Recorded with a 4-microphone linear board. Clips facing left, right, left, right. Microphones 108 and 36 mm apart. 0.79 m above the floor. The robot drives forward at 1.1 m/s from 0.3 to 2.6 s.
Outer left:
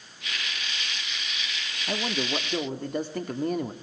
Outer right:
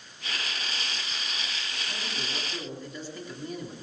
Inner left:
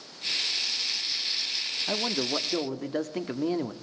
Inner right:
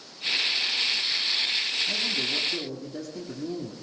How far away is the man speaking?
About 1.6 m.